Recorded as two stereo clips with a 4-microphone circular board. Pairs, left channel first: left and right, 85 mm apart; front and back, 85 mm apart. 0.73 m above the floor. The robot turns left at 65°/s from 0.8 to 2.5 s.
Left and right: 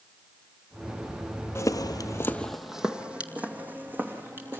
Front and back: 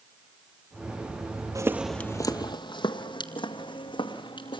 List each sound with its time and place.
1.6 s footsteps: 140° left, 1.1 m; by 4.6 s 25° right, 3.5 m